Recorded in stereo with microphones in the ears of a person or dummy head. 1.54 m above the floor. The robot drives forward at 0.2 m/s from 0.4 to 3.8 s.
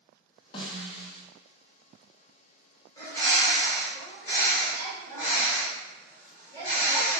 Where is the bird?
15° left (ahead or behind), 1.2 m.